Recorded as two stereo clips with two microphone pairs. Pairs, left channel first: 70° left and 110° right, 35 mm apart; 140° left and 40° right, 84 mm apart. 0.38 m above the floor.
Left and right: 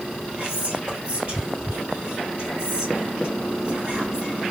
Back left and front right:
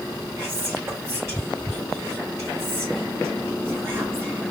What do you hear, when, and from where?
0.4 s whispering: 85° right, 1.6 m